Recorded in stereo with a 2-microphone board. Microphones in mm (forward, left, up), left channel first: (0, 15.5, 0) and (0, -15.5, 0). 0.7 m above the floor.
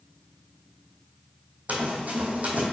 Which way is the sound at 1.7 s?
55° right (ahead or behind).